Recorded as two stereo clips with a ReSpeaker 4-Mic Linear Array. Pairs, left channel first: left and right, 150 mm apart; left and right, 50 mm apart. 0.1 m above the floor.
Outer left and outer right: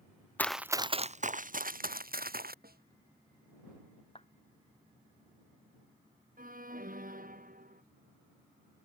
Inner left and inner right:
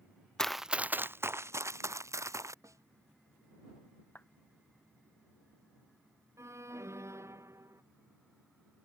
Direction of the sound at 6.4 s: 70° right (ahead or behind).